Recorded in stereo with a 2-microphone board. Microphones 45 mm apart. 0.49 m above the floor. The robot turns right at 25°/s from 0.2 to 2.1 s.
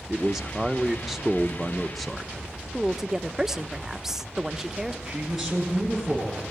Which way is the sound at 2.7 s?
10° right (ahead or behind).